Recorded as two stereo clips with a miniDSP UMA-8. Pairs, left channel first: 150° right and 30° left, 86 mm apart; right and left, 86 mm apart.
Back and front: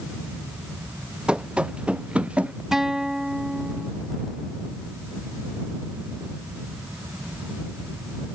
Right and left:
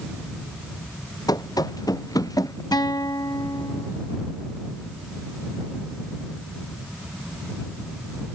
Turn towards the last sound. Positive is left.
turn(degrees=-55)